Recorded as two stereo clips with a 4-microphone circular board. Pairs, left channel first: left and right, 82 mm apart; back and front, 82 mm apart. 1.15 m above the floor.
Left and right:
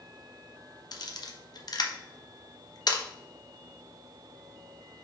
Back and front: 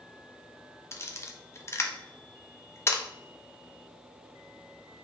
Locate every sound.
0.9 s a camera shutter: 125° left, 0.6 m